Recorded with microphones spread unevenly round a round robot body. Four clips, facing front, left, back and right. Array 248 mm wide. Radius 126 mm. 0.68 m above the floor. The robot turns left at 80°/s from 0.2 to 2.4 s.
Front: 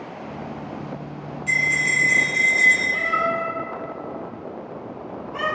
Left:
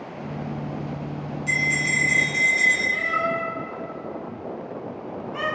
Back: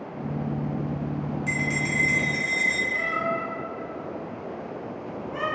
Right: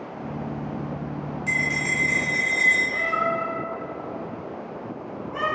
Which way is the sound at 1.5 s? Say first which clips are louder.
Left 2 dB, front 7 dB; 140° right.